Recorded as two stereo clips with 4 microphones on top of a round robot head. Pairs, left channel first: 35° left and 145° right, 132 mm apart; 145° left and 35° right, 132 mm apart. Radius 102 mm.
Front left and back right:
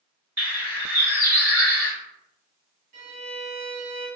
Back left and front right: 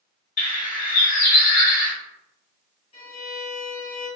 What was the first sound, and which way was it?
A bird, 135° left.